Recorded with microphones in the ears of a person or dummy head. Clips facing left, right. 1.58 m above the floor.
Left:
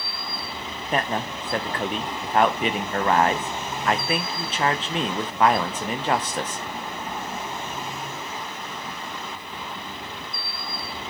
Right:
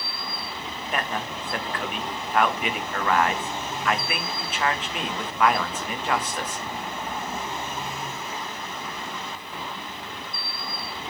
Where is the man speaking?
30° left (ahead or behind), 1.0 m.